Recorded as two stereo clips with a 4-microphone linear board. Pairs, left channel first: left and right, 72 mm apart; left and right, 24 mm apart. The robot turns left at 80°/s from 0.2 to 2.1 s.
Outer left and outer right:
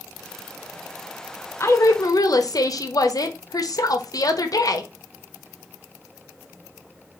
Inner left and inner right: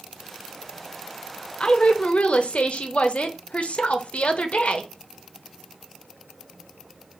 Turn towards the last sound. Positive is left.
turn(degrees=95)